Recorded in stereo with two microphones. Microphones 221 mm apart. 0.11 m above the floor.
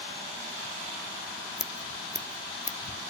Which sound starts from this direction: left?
Scissors, at 1.6 s.